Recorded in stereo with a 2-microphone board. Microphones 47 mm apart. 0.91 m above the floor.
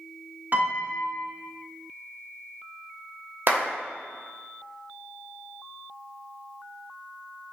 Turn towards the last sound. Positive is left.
turn(degrees=-45)  # may be behind; listen again after turning